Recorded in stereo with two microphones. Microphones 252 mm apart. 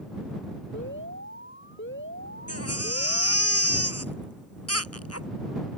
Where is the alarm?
50° left (ahead or behind).